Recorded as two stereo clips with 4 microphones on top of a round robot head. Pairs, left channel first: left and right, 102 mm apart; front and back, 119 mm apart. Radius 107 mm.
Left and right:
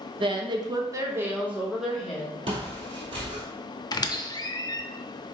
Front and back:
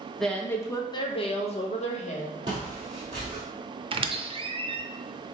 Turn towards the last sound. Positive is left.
turn(degrees=140)